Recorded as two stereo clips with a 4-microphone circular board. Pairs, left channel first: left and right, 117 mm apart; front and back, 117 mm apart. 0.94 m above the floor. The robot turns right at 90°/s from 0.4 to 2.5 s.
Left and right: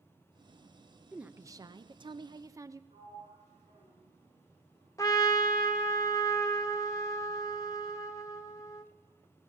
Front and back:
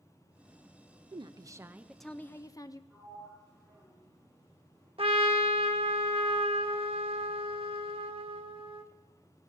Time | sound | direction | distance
1.1 | a woman speaking | 170° right | 0.5 m
2.9 | a sliding door | 85° right | 4.5 m
5.0 | a trumpet | 150° left | 0.8 m